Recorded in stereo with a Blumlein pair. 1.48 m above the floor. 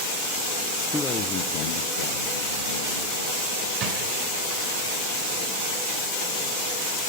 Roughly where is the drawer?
Ahead right.